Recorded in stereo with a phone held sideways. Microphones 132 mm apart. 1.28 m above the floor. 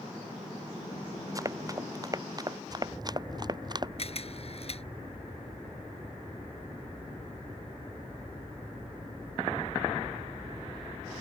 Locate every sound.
1.4 s running footsteps: 25° right (ahead or behind); by 3.9 s 30° right (ahead or behind)
4.0 s a camera shutter: 50° left (ahead or behind)